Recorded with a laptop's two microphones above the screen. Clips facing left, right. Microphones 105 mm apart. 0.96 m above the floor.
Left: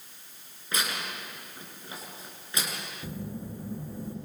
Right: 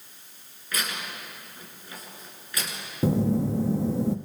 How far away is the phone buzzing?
About 0.8 m.